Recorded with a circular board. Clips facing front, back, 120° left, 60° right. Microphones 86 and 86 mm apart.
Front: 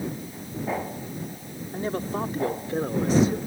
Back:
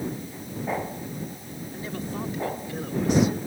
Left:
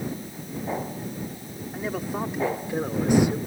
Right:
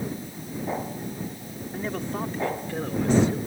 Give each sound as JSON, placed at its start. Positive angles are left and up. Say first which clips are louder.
{"t": 1.7, "sound": "a man speaking", "louder": "front 5 dB, left 1 dB", "azimuth_deg": 35}